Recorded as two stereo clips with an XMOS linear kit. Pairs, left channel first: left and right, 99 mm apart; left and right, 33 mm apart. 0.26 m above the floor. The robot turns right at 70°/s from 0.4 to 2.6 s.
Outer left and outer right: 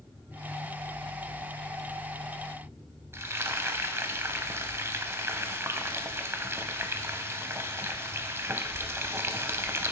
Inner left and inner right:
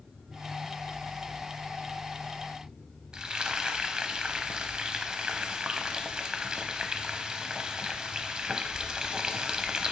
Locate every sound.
3.1 s frying: 30° right (ahead or behind), 0.6 m